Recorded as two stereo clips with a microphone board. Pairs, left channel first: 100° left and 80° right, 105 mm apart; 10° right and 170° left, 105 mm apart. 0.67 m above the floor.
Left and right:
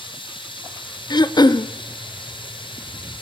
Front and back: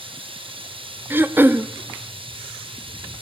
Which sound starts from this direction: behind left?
Running water, at 0.0 s.